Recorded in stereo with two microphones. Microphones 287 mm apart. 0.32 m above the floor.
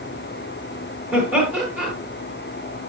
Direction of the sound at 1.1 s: 5° right (ahead or behind).